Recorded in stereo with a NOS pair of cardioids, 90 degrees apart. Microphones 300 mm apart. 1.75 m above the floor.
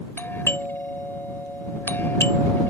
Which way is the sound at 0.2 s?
5° left.